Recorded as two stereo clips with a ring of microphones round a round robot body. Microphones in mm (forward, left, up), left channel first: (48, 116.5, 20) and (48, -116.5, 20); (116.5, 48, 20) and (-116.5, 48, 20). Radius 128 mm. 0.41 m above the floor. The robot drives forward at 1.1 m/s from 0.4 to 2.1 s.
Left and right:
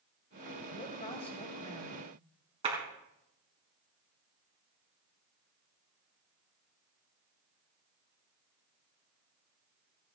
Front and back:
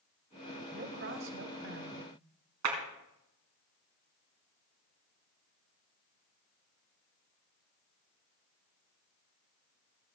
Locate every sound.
0.7 s a woman speaking: 150° left, 1.9 m; by 2.0 s 165° left, 3 m
2.6 s a clap: 160° right, 4 m